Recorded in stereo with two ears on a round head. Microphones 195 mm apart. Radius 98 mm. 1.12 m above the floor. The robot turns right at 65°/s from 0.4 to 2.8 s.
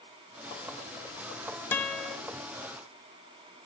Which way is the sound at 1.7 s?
10° left (ahead or behind).